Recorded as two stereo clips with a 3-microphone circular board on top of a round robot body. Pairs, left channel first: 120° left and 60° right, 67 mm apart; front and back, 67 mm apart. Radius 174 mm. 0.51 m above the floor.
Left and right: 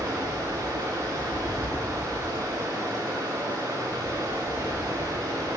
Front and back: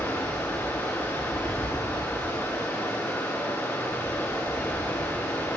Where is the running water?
55° right, 4.5 m.